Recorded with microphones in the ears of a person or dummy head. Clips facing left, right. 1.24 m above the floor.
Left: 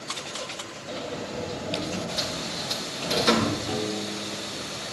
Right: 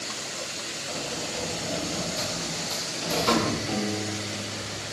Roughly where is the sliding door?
Left.